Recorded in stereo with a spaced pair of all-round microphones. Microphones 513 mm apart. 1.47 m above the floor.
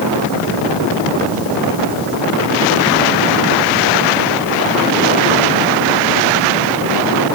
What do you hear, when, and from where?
Only background noise.